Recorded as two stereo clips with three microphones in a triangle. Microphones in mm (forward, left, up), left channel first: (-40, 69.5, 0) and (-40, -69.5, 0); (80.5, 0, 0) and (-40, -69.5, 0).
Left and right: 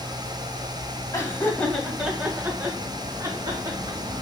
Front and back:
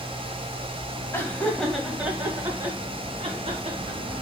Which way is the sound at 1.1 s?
70° left.